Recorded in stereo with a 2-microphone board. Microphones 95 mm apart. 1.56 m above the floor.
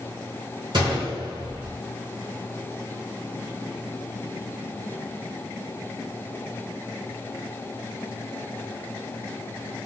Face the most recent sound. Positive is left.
turn(degrees=-50)  # may be behind; listen again after turning